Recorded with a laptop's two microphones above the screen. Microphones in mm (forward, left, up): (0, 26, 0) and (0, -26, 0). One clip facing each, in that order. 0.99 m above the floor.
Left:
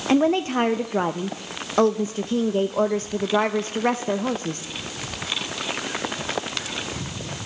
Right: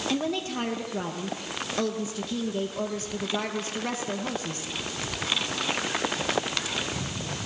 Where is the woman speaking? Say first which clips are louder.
Left 12 dB; 40° left (ahead or behind), 0.6 m.